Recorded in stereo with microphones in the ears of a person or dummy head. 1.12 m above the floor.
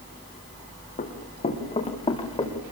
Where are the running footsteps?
40° left (ahead or behind), 5.5 m; by 2.5 s 20° left (ahead or behind), 6.5 m.